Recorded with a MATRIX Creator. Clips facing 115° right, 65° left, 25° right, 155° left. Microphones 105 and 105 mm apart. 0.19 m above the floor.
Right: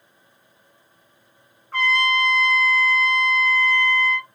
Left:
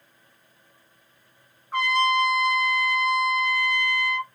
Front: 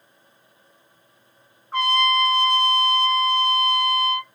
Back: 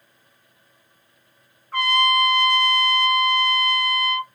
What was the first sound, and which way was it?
A trumpet, 15° left.